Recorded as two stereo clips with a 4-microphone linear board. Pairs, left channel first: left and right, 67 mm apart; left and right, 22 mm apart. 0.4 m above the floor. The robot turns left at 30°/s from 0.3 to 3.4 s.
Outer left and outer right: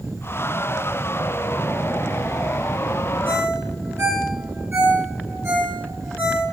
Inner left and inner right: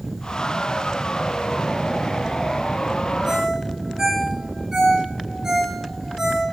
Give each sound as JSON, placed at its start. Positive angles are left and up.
{"t": 3.2, "sound": "a ringtone", "side_deg": -40, "distance_m": 3.5}